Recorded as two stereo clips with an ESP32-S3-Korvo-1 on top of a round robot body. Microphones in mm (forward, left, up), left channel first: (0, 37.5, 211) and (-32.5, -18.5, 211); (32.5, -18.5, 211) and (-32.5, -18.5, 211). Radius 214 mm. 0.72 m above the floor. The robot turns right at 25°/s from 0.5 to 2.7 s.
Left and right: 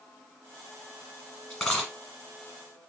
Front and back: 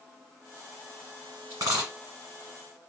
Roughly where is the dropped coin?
Behind left.